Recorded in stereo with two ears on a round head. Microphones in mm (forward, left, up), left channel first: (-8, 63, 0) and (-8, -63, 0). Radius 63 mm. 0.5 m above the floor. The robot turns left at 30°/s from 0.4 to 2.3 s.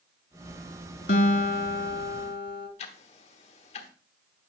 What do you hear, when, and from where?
1.1 s a guitar: 115° left, 1.8 m; by 2.7 s 75° left, 1.8 m
2.8 s ticking: 50° left (ahead or behind), 1.1 m